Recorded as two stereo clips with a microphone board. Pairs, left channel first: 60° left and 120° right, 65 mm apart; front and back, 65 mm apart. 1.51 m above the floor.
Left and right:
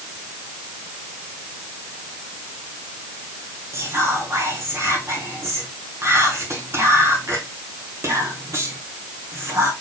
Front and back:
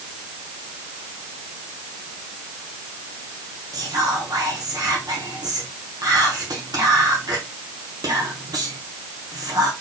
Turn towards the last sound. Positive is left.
turn(degrees=-165)